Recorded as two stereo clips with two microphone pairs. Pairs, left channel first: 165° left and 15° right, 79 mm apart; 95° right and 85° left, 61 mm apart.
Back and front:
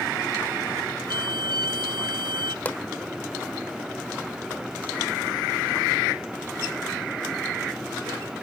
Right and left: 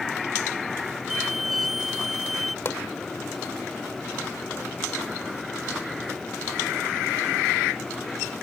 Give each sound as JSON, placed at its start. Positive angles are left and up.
{"t": 1.1, "sound": "a violin", "azimuth_deg": -5}
{"t": 2.6, "sound": "a pop", "azimuth_deg": -130}